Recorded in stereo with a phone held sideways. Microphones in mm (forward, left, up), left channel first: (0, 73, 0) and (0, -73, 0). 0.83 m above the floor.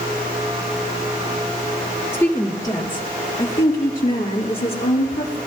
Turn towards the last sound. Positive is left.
turn(degrees=65)  # may be behind; listen again after turning